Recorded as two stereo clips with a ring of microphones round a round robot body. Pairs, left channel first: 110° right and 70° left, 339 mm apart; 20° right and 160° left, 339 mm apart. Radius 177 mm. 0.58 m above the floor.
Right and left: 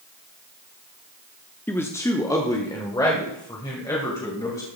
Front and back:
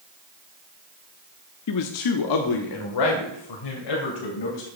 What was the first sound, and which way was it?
A man speaking, 30° right.